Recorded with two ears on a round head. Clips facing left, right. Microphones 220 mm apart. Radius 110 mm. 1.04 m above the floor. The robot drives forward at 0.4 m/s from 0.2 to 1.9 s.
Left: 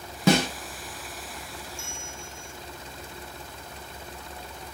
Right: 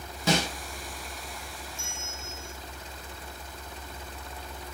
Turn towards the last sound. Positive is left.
turn(degrees=-20)  # may be behind; listen again after turning